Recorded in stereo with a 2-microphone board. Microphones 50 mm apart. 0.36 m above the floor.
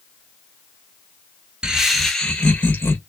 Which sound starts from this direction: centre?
Laughter, at 1.6 s.